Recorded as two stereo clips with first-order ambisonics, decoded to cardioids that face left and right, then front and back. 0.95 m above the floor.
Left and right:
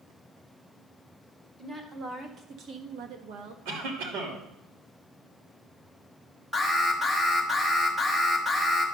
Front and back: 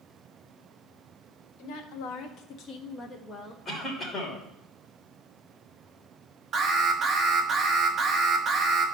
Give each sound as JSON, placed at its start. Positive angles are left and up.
{"t": 1.6, "sound": "a woman speaking", "azimuth_deg": -15, "distance_m": 1.7}
{"t": 3.6, "sound": "a cough", "azimuth_deg": -80, "distance_m": 3.0}
{"t": 6.5, "sound": "an alarm", "azimuth_deg": 180, "distance_m": 1.2}